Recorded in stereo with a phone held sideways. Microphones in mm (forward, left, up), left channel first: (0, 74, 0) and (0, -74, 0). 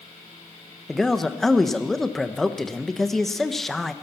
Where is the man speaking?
Centre (ahead or behind), 0.9 m.